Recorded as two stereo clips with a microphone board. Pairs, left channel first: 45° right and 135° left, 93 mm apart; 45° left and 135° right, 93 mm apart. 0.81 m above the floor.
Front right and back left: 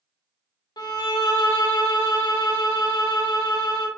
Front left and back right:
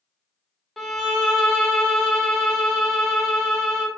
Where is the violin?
45° right, 0.5 m.